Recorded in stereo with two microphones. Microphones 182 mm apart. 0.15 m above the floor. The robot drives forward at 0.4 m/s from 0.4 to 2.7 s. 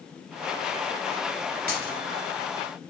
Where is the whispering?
No whispering in this recording.